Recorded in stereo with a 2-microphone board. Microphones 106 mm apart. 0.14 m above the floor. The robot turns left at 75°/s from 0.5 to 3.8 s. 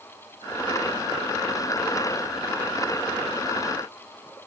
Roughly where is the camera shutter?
I don't hear a camera shutter.